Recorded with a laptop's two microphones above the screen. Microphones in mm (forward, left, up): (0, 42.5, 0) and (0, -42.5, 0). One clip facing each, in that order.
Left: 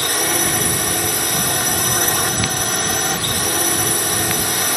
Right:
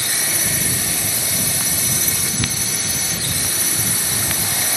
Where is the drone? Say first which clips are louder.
Left 7 dB; 55° left (ahead or behind).